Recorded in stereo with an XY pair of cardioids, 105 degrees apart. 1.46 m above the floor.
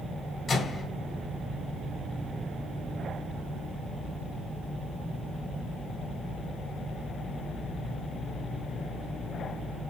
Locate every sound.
0.5 s a microwave: 30° left, 4 m